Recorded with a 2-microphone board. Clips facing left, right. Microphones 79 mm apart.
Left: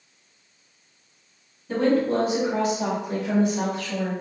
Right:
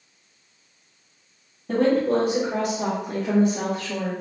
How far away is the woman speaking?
About 1.6 m.